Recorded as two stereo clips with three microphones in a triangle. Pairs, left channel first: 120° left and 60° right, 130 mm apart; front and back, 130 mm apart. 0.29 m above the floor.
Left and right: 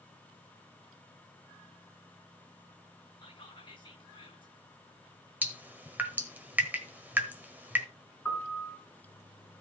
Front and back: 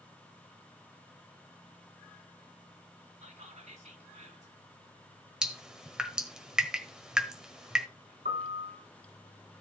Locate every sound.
3.2 s whispering: 170° left, 2.5 m
5.4 s dripping: 105° right, 1.4 m
8.2 s a piano: 165° right, 3.5 m